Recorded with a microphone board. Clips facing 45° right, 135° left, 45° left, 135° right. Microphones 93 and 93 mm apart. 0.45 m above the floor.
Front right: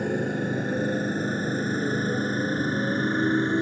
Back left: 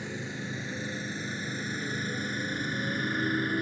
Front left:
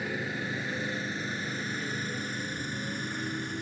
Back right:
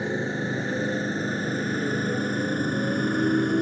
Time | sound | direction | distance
0.0 | a motorcycle | 75° right | ?